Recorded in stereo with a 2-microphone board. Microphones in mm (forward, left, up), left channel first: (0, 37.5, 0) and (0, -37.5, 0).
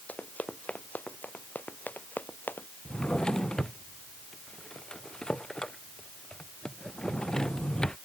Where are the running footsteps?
20° left (ahead or behind); by 2.7 s 25° left (ahead or behind).